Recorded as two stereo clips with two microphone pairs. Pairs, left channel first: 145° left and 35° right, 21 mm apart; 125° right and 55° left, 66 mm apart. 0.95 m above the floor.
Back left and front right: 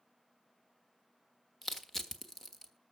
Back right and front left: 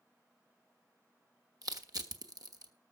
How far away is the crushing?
About 1.3 m.